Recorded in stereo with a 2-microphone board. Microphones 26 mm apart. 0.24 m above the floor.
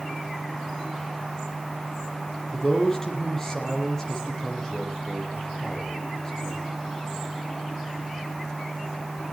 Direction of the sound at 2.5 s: 20° left (ahead or behind).